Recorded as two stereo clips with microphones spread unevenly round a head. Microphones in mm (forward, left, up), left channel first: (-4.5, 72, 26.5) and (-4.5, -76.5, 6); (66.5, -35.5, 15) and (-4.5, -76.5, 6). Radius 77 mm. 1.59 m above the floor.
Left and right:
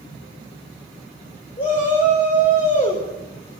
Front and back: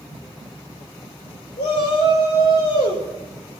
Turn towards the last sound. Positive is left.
turn(degrees=35)